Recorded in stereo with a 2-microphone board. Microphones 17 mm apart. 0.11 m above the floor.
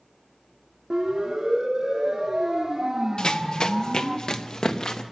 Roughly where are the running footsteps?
Left.